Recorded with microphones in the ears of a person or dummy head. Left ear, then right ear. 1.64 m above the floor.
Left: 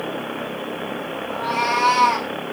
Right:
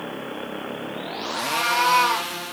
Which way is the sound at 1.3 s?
15° right (ahead or behind).